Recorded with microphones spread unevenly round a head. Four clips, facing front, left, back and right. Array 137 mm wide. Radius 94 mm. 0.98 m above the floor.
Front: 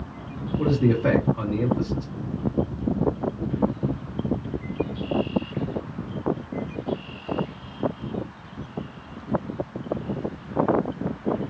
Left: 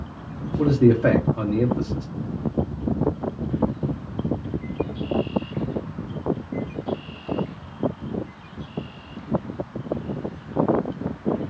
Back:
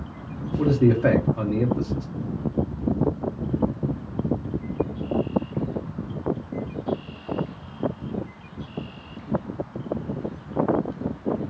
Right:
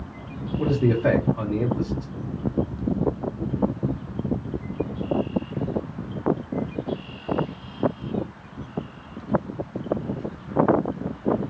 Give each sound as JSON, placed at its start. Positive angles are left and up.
{"t": 0.6, "sound": "a man speaking", "azimuth_deg": 125, "distance_m": 1.2}